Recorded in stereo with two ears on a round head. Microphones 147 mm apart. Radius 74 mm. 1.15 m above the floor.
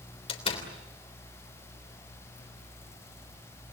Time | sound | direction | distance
0.3 | a door slam | 35° left (ahead or behind) | 3 m